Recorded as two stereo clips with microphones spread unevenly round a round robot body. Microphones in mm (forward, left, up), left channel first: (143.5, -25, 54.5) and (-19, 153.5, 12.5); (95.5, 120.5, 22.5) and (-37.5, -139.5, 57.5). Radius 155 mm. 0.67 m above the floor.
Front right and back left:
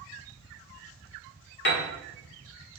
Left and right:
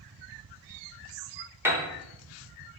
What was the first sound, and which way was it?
A piano, 30° right.